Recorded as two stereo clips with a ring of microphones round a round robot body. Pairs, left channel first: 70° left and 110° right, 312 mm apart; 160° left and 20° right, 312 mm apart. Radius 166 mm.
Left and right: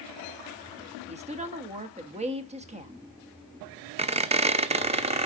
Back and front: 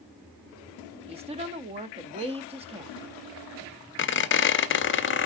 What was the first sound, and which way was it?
A woman speaking, 70° right.